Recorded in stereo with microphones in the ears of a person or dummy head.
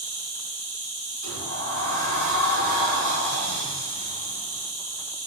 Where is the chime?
No chime in this recording.